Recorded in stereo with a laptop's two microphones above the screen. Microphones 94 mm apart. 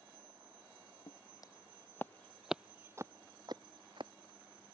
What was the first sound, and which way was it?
Footsteps, 50° left (ahead or behind).